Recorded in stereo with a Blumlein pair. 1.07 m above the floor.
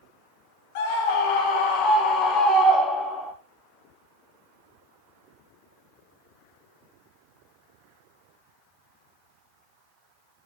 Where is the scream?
50° left, 2.0 m; by 3.3 s 5° left, 1.3 m.